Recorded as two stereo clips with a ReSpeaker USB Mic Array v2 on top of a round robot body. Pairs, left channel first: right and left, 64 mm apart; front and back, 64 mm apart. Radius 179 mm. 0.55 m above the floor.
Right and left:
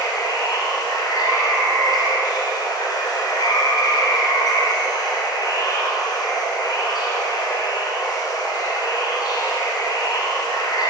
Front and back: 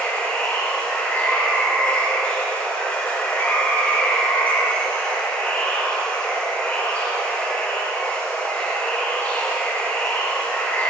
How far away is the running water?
About 2.0 m.